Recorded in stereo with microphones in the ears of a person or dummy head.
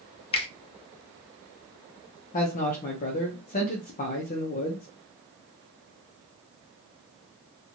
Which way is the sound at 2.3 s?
40° left (ahead or behind).